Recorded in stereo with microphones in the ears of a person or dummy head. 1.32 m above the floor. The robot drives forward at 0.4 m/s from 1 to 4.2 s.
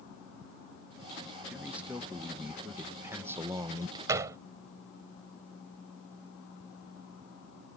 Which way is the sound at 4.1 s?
20° right (ahead or behind).